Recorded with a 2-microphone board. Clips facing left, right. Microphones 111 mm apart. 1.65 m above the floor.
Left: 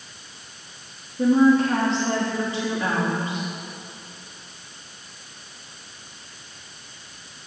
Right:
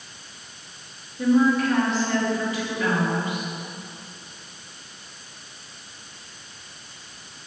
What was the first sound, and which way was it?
A woman speaking, 30° left (ahead or behind).